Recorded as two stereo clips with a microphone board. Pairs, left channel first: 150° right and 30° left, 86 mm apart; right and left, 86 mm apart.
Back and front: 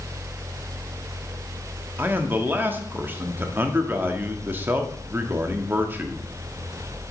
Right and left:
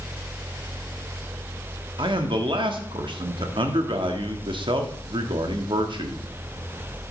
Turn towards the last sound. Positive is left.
turn(degrees=95)